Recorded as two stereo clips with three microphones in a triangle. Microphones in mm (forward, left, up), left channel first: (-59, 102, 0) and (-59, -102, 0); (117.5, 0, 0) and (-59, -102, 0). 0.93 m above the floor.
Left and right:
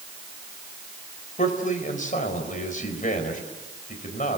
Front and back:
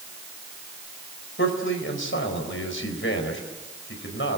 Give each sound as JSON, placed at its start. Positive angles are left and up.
{"t": 1.4, "sound": "a man speaking", "azimuth_deg": 40, "distance_m": 4.5}